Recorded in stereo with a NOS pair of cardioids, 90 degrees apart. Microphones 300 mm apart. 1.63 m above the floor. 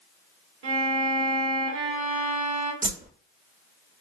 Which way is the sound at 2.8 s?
30° right.